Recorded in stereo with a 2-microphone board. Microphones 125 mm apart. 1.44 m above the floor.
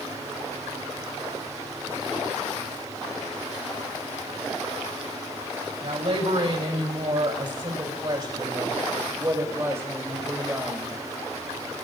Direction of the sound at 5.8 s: 55° right (ahead or behind).